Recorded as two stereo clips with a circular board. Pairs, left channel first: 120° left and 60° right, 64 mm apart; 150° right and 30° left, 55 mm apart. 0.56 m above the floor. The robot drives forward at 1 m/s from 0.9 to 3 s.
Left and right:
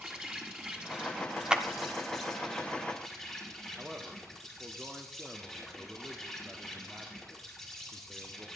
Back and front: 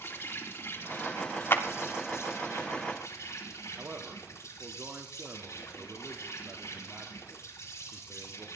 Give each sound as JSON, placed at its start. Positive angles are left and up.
{"t": 0.0, "sound": "an insect", "azimuth_deg": -130, "distance_m": 3.0}
{"t": 1.5, "sound": "a clap", "azimuth_deg": -130, "distance_m": 1.2}
{"t": 3.8, "sound": "a man speaking", "azimuth_deg": 10, "distance_m": 1.5}